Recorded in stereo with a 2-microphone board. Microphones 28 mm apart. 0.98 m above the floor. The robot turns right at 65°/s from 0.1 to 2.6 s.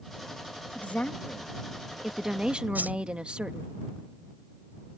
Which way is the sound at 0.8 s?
105° left.